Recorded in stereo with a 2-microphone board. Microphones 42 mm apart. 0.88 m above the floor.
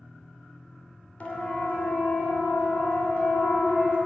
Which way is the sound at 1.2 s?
35° left (ahead or behind).